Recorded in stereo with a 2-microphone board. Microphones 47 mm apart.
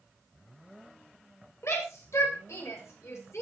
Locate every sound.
1.6 s a shout: 70° left (ahead or behind), 7 m; by 3.4 s 75° left (ahead or behind), 6.5 m